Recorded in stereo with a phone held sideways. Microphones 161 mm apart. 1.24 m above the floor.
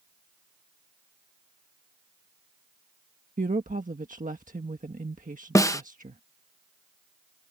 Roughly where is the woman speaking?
Right.